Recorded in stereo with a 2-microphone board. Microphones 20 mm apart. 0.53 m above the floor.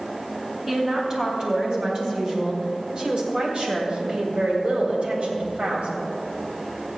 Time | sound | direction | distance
0.7 | a woman speaking | 35° right (ahead or behind) | 4 m